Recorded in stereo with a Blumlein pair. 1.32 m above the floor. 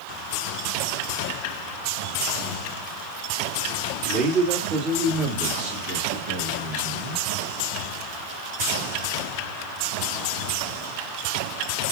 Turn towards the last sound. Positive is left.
turn(degrees=-65)